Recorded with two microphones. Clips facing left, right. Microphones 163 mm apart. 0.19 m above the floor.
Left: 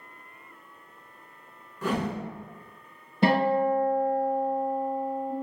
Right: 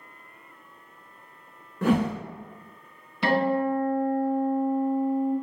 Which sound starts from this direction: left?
A guitar, at 3.2 s.